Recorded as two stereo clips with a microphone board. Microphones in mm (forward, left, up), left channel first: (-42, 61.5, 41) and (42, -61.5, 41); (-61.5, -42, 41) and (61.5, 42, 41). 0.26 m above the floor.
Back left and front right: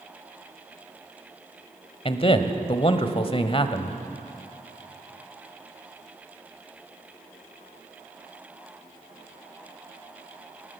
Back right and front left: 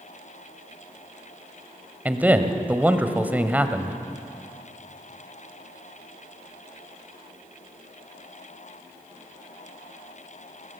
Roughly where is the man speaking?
Left.